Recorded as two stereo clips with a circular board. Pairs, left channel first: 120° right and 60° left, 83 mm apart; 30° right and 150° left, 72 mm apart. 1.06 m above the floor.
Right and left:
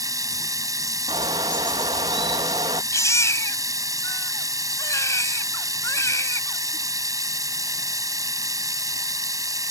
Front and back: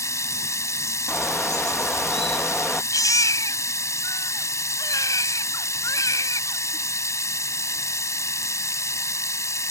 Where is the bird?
50° left.